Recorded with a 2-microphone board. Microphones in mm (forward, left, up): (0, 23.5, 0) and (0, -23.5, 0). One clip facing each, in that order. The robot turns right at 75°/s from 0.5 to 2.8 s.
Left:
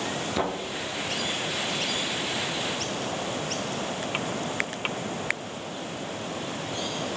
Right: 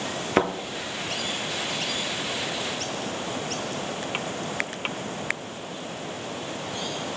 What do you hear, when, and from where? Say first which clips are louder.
0.4 s a thud: right 6 dB; 45° right (ahead or behind), 0.9 m; by 0.5 s 50° right (ahead or behind), 0.9 m